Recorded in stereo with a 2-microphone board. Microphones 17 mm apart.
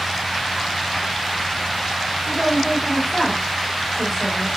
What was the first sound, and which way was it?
A woman speaking, 5° left (ahead or behind).